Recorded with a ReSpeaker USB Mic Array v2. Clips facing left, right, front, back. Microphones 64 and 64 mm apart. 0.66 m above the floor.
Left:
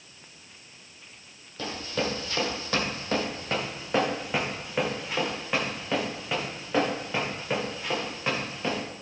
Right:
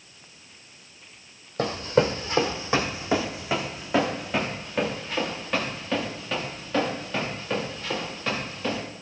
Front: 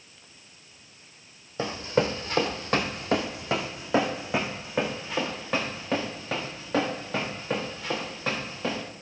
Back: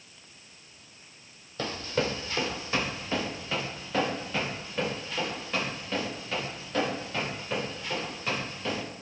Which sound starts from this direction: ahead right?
Running footsteps, at 1.6 s.